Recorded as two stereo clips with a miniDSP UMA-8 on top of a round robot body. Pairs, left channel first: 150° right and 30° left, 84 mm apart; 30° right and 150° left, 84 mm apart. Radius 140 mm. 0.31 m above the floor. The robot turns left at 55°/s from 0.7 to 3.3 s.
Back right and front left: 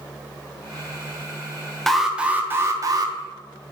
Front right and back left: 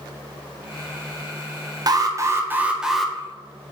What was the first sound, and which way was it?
An alarm, 125° left.